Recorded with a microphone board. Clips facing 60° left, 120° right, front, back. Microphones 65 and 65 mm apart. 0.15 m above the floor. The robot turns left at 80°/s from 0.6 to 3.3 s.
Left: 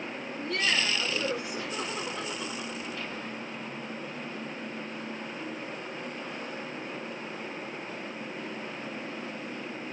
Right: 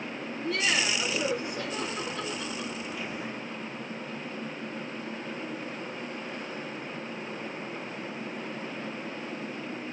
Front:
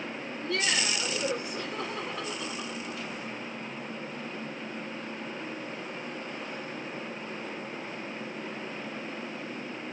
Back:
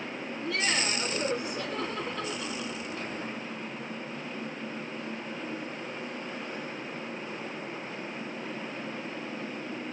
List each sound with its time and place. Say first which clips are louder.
0.3 s laughter: right 1 dB, even; 175° left, 1.6 m; by 3.1 s 25° right, 1.6 m